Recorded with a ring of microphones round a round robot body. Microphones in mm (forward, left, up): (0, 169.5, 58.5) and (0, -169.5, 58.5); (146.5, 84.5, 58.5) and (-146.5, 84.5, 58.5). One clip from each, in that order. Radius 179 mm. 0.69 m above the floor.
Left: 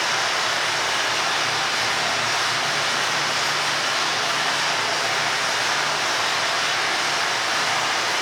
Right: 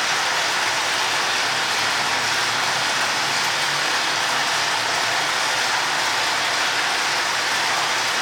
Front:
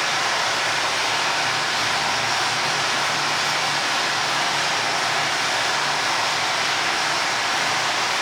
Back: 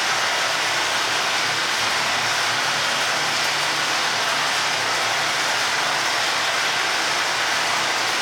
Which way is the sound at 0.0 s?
140° right.